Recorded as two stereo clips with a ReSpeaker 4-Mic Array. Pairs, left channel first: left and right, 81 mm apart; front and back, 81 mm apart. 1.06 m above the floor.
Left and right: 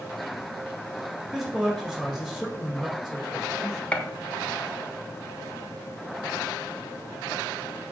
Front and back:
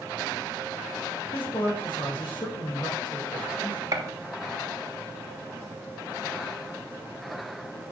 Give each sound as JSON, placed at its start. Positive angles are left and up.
{"t": 1.3, "sound": "a man speaking", "azimuth_deg": 0, "distance_m": 4.5}
{"t": 3.9, "sound": "a gunshot", "azimuth_deg": 160, "distance_m": 0.9}